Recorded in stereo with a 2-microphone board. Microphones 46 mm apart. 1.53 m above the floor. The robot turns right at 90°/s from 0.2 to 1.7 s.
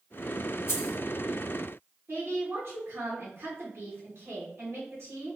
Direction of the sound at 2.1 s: 60° right (ahead or behind).